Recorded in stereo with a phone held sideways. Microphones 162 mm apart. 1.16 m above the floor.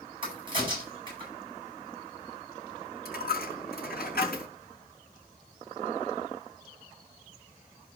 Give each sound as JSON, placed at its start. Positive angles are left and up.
{"t": 0.2, "sound": "a crack", "side_deg": -30, "distance_m": 10.0}
{"t": 3.0, "sound": "a dropped coin", "side_deg": 75, "distance_m": 4.0}